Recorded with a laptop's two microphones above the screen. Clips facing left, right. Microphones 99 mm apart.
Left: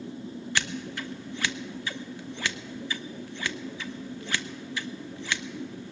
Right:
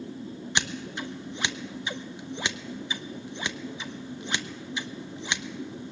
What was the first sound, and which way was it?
Scissors, 20° right (ahead or behind).